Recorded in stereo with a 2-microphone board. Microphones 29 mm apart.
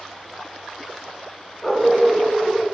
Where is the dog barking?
10° left (ahead or behind), 3 m; by 2.6 s 10° right (ahead or behind), 3 m.